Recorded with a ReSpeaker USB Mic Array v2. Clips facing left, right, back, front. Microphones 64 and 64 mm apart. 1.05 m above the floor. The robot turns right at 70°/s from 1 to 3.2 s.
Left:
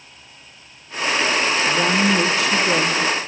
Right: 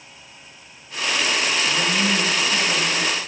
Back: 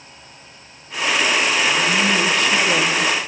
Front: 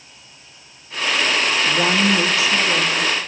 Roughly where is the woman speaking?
Ahead left.